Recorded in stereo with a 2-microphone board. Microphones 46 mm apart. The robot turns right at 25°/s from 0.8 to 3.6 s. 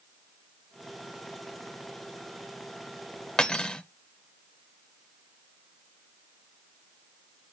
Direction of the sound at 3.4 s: 20° left (ahead or behind).